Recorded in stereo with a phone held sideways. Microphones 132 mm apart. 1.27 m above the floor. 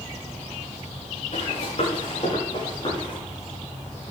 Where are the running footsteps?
60° left (ahead or behind), 7 m; by 3.2 s 40° left (ahead or behind), 8 m.